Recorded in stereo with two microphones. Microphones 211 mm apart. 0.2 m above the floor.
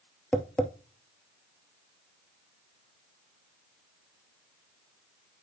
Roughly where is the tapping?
Centre.